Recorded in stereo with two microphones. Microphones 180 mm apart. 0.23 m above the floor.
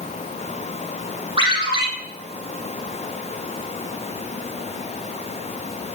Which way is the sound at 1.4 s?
25° right (ahead or behind).